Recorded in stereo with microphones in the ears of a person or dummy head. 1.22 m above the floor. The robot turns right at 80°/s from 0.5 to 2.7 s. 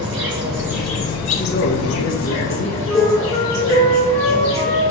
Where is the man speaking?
45° left, 1.0 m; by 2.9 s 150° left, 1.0 m.